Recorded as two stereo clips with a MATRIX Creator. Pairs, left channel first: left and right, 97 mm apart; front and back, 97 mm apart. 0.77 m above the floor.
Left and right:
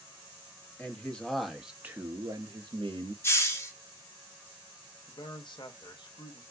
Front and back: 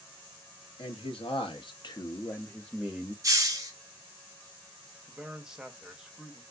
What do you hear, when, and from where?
0.8 s a man speaking: 15° left, 1.0 m; by 3.1 s 105° right, 0.7 m
3.2 s a hiss: 140° left, 0.6 m
5.1 s a man speaking: 95° left, 0.6 m